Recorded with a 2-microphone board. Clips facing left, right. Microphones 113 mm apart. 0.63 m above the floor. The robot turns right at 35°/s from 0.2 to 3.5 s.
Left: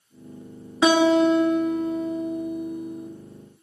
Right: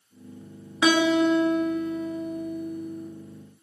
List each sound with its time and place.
0.8 s a guitar: 80° left, 0.5 m; by 3.1 s 160° left, 0.5 m